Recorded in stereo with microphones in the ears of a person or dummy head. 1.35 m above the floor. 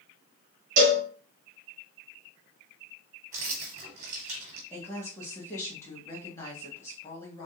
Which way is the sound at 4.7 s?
20° left (ahead or behind).